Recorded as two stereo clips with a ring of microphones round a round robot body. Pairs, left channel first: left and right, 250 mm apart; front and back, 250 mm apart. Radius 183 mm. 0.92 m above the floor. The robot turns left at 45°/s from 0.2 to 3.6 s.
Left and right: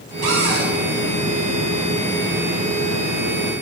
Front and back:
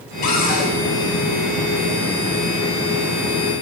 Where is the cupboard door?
60° right, 2.5 m; by 0.7 s 80° right, 2.5 m.